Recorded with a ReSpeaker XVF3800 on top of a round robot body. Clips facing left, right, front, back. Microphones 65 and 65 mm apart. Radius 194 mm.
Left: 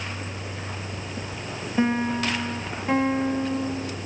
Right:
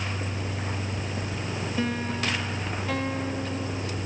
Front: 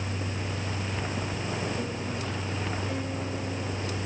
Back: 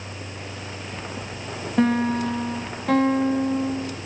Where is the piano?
155° left.